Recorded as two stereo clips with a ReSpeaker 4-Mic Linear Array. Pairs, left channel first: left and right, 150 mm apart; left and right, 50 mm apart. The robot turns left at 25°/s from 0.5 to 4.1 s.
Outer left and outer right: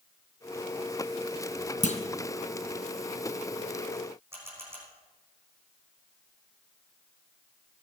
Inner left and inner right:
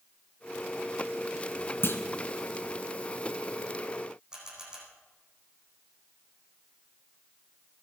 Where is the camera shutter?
15° right (ahead or behind), 8.5 m.